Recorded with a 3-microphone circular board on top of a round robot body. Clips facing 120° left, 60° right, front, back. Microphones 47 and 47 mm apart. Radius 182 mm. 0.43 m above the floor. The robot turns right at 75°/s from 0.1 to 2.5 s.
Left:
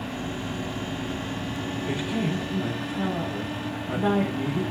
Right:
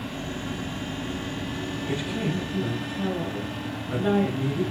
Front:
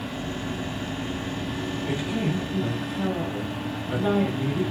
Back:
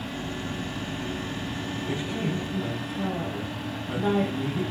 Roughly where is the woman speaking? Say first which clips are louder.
Left 1 dB, front 2 dB; ahead left.